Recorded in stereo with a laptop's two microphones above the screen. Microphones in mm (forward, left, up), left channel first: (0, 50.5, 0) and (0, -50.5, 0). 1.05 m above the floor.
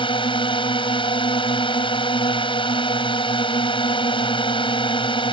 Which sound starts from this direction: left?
A drone, at 0.0 s.